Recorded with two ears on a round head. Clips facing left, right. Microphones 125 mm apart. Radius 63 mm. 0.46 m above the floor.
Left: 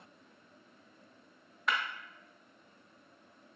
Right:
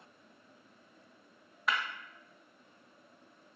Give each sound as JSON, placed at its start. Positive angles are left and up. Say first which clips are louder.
{"t": 1.7, "sound": "breaking glass", "louder": "even", "side_deg": 0, "distance_m": 0.6}